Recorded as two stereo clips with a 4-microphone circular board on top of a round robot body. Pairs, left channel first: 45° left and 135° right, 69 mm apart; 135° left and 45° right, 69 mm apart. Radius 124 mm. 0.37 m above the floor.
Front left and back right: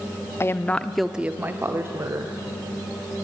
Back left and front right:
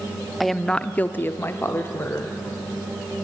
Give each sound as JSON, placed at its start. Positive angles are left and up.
{"t": 0.4, "sound": "a woman speaking", "azimuth_deg": 45, "distance_m": 0.9}